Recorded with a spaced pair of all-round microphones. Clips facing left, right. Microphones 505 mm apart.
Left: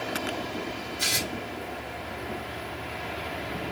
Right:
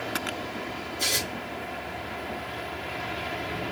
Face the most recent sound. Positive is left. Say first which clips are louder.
# right 2 dB
turn(degrees=30)  # may be behind; listen again after turning